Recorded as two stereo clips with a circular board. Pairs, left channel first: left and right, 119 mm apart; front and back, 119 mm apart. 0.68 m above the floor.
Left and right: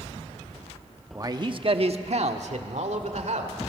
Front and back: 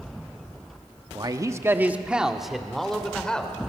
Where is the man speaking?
145° right, 1.0 m; by 3.5 s 80° right, 2.5 m.